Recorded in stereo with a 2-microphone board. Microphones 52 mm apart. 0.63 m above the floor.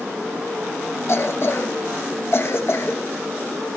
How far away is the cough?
About 1.1 m.